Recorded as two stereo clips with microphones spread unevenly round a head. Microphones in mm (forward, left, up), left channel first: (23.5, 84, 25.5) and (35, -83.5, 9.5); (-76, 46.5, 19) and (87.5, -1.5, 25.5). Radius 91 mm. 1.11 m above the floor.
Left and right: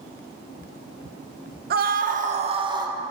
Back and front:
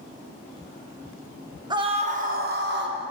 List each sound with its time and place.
1.7 s a scream: 80° right, 1.2 m; by 3.0 s 20° right, 1.4 m